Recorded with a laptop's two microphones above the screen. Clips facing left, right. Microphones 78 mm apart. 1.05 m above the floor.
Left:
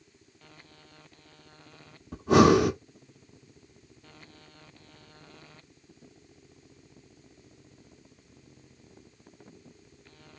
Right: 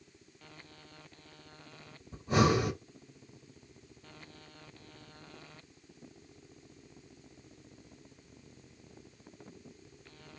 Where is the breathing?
85° left, 1.1 m.